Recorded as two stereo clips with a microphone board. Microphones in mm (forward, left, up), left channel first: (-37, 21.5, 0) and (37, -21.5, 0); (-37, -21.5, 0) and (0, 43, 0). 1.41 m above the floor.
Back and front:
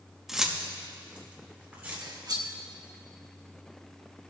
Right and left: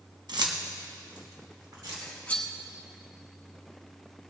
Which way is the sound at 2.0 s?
55° right.